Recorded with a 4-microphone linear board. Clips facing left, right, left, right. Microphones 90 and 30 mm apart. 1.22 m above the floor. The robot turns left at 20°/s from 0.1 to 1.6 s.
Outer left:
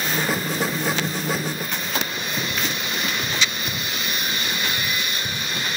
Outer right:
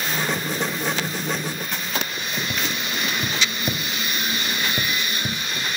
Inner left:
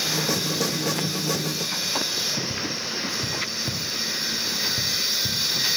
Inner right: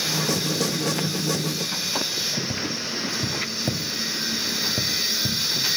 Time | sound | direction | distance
2.5 | tapping | 60° right (ahead or behind) | 2 m